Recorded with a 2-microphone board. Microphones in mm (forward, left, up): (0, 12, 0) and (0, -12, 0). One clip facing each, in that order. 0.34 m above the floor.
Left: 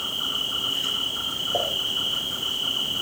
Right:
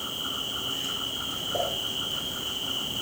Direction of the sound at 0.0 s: 75° left (ahead or behind).